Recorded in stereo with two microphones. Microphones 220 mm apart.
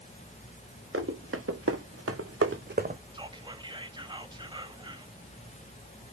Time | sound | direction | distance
0.9 | running footsteps | 65° right (ahead or behind) | 2 m
3.1 | whispering | 20° right (ahead or behind) | 1.0 m